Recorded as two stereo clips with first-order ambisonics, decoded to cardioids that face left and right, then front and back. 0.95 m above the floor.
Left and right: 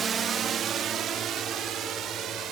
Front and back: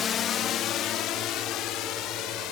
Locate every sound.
0.0 s a drone: 40° right; by 2.5 s 35° right